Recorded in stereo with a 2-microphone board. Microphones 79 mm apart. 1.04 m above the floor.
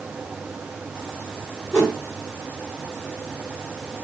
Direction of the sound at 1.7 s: 10° left (ahead or behind).